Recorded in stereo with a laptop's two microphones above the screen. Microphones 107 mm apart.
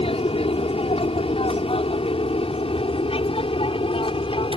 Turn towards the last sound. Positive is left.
turn(degrees=55)  # may be behind; listen again after turning